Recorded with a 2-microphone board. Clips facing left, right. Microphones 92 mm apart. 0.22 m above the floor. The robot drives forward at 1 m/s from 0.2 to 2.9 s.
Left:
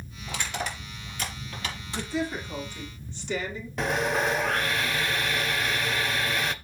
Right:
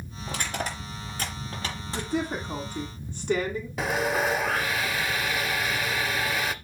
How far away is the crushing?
About 4.5 m.